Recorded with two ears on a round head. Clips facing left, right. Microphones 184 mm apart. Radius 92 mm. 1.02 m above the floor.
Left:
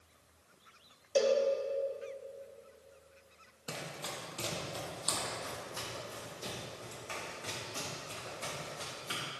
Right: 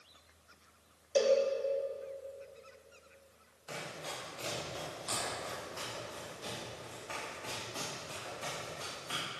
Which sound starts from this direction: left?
Running footsteps, at 3.7 s.